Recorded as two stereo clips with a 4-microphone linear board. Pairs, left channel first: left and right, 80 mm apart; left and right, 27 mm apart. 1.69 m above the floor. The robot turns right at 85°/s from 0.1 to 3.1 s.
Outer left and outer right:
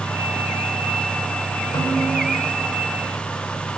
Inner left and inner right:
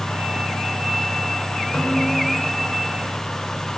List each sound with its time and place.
1.7 s a snare drum: 80° left, 4.5 m; by 2.3 s 130° left, 4.5 m